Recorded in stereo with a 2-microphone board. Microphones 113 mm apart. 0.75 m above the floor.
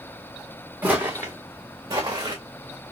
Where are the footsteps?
15° right (ahead or behind), 2.5 m; by 2.4 s 35° right (ahead or behind), 2.5 m.